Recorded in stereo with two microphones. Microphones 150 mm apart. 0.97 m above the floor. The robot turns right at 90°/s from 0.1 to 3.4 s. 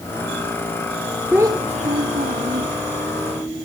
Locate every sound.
1.3 s a child speaking: 170° right, 0.6 m; by 2.7 s 45° right, 0.6 m